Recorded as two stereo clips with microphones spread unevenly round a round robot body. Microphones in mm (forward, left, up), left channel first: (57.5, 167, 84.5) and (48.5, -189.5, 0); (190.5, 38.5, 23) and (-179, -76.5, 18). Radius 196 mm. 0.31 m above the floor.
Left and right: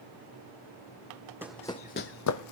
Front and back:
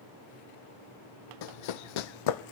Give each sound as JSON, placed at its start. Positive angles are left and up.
{"t": 1.4, "sound": "running footsteps", "azimuth_deg": 0, "distance_m": 0.7}